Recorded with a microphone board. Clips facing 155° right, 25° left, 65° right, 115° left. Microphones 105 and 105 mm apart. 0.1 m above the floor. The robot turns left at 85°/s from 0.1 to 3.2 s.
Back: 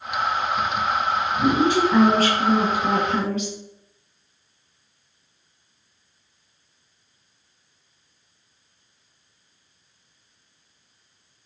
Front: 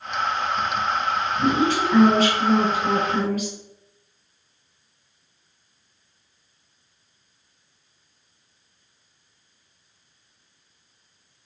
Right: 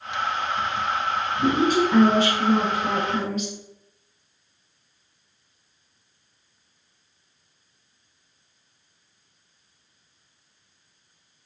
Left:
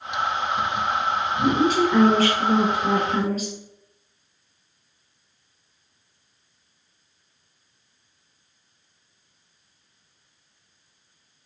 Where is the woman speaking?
60° right, 1.9 m; by 3.5 s 150° left, 1.9 m.